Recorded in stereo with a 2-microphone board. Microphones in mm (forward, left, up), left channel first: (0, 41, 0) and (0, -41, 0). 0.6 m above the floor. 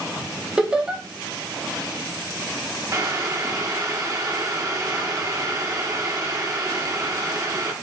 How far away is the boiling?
About 0.9 m.